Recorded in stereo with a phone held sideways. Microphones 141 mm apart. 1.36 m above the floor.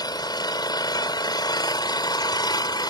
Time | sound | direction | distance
0.0 | an engine running | 30° left (ahead or behind) | ?